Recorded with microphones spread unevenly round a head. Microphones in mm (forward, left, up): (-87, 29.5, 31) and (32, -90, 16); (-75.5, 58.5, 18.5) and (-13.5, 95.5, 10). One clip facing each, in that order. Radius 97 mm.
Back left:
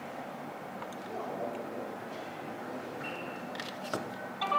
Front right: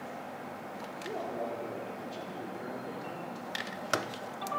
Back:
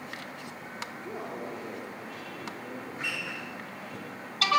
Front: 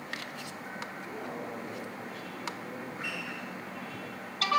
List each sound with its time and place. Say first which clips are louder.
1.0 s a man speaking: front right 2 dB, back 3 dB; 95° right, 4 m; by 4.2 s 100° right, 5.5 m